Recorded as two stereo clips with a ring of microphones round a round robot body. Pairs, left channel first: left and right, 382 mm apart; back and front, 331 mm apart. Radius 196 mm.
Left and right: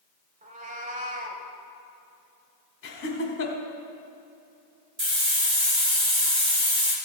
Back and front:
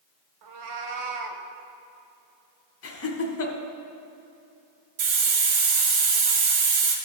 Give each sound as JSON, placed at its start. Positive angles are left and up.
{"t": 0.4, "sound": "a cat meowing", "azimuth_deg": -20, "distance_m": 1.1}
{"t": 2.8, "sound": "laughter", "azimuth_deg": 145, "distance_m": 1.5}
{"t": 5.0, "sound": "a hiss", "azimuth_deg": -15, "distance_m": 1.9}